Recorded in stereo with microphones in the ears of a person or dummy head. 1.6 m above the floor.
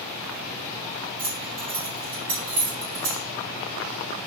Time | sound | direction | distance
1.2 | keys jangling | 45° right (ahead or behind) | 1.9 m